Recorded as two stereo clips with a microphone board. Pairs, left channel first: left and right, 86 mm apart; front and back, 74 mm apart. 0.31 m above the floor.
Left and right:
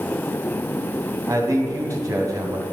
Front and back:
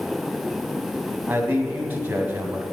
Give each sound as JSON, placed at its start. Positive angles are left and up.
{"t": 1.3, "sound": "a man speaking", "azimuth_deg": -125, "distance_m": 2.5}